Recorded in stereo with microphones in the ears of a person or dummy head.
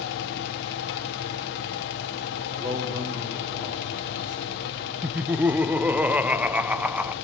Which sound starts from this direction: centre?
Laughter, at 5.0 s.